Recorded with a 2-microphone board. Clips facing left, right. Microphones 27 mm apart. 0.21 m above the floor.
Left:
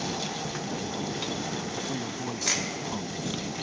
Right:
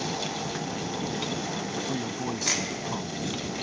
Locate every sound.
1.8 s a man speaking: 15° right (ahead or behind)